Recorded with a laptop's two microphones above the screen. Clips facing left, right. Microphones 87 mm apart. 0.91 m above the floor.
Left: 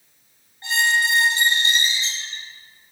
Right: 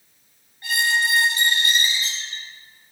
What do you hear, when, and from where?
0.6 s a squeak: 25° left (ahead or behind), 2.5 m